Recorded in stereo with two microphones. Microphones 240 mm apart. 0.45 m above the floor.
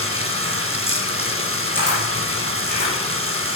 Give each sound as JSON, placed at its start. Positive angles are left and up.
{"t": 0.0, "sound": "running water", "side_deg": -65, "distance_m": 1.5}
{"t": 1.8, "sound": "a camera shutter", "side_deg": -45, "distance_m": 6.5}